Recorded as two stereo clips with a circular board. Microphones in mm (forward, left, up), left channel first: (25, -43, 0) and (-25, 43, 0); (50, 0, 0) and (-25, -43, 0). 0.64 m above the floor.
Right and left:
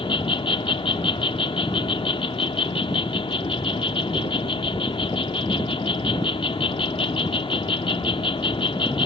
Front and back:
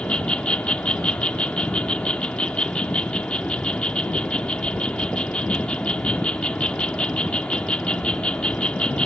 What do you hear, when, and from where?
0.0 s an insect: 45° right, 0.9 m